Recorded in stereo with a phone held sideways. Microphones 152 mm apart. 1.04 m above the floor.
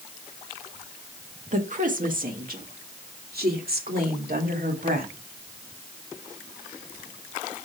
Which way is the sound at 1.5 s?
55° right (ahead or behind).